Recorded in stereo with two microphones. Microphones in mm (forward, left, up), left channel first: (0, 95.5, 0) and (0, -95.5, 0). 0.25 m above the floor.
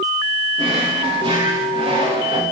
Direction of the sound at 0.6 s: 25° right (ahead or behind).